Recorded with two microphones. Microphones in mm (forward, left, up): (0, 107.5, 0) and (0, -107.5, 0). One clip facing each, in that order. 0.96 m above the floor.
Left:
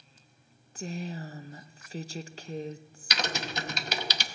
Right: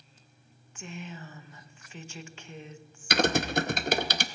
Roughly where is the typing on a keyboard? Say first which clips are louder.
Right 9 dB; right.